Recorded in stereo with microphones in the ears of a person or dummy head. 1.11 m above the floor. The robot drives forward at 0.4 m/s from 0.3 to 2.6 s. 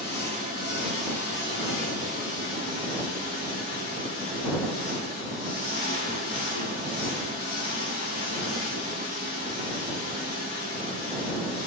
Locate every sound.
0.0 s an engine running: 55° left (ahead or behind), 3 m; by 11.7 s 70° left (ahead or behind), 2.5 m